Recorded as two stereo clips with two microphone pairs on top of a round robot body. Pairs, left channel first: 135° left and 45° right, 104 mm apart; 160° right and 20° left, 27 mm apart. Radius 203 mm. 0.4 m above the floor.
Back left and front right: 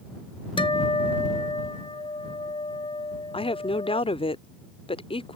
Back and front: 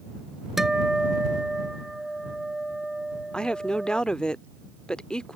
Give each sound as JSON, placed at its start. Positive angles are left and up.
{"t": 0.6, "sound": "a guitar", "azimuth_deg": 95}
{"t": 3.3, "sound": "a woman speaking", "azimuth_deg": 140}